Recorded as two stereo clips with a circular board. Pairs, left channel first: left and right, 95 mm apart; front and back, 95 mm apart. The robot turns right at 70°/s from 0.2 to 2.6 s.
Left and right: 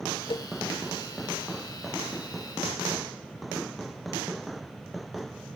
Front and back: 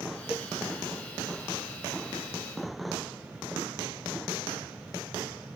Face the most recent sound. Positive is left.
turn(degrees=-95)